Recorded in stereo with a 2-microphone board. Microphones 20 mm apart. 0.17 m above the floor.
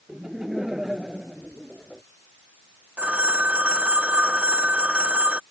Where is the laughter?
25° right (ahead or behind).